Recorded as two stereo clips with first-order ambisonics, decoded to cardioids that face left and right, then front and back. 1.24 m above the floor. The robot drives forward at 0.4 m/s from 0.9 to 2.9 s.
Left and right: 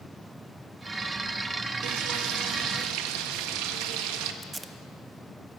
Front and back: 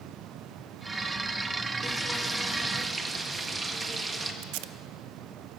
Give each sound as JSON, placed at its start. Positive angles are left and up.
{"t": 1.8, "sound": "frying", "azimuth_deg": -85, "distance_m": 1.4}
{"t": 4.4, "sound": "tape being pulled", "azimuth_deg": -170, "distance_m": 0.7}